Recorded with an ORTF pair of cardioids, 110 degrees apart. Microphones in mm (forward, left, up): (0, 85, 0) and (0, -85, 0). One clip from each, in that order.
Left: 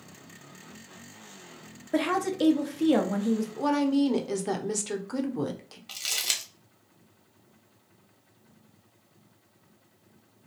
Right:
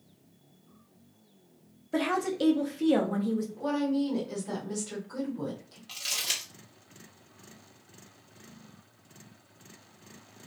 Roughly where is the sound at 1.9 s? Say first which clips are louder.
Left 2 dB; ahead.